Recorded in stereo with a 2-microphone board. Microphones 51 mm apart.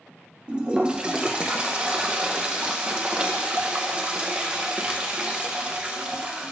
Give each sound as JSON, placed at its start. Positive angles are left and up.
{"t": 0.5, "sound": "a toilet flushing", "side_deg": -20, "distance_m": 0.6}